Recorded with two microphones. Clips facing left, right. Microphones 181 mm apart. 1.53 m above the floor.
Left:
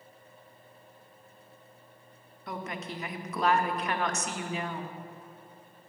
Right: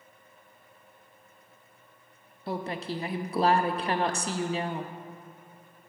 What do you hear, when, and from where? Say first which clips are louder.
2.5 s a woman speaking: right 5 dB; 35° right (ahead or behind), 0.6 m